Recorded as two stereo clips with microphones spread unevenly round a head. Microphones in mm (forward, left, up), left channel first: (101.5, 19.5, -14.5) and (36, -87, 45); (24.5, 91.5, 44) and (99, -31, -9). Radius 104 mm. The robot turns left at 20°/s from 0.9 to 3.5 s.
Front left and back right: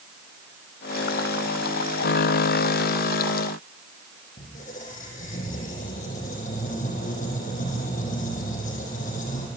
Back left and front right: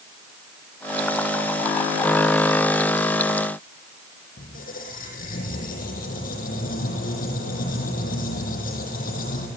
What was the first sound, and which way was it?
A squeak, 110° left.